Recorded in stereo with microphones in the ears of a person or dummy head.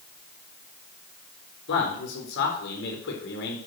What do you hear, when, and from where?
1.7 s a man speaking: 65° left (ahead or behind), 4 m